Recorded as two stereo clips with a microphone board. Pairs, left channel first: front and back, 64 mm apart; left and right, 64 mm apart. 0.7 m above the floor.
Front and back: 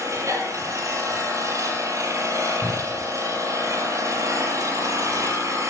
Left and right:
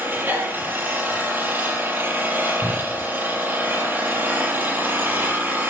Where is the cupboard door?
Straight behind, 2 m.